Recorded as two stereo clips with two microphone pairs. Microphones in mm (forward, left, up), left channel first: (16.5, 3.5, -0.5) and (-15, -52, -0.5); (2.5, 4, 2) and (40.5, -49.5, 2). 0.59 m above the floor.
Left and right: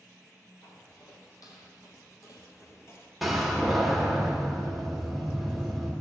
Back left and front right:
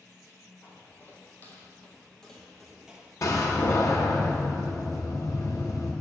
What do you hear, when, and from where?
0.6 s footsteps: 70° left, 2 m; by 3.1 s 15° left, 0.9 m
3.2 s a door slam: 155° left, 1.2 m